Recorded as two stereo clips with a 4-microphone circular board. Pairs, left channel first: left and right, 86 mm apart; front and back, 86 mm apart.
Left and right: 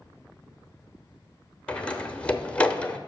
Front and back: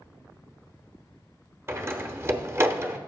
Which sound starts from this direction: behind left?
A door slam, at 1.7 s.